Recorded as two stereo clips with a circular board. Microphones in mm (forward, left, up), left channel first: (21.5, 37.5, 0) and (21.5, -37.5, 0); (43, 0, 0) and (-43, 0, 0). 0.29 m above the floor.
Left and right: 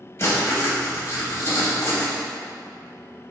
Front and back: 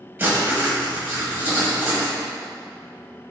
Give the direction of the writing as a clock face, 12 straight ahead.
8 o'clock.